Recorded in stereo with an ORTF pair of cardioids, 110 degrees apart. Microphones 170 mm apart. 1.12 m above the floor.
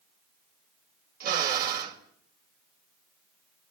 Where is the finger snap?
I don't hear a finger snap.